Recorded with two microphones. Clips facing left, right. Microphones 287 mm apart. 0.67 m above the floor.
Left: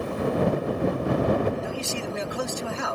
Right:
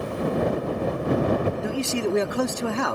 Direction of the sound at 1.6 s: 60° right (ahead or behind).